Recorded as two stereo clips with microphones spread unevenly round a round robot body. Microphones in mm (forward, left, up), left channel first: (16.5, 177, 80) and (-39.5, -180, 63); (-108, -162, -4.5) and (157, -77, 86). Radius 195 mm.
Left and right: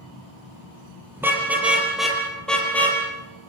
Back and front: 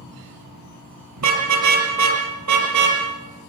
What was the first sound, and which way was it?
A car horn, 15° right.